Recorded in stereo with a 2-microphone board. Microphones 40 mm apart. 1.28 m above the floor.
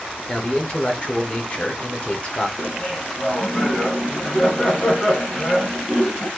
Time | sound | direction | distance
0.3 | a man speaking | 30° left (ahead or behind) | 1.1 m
2.6 | laughter | 20° left (ahead or behind) | 1.4 m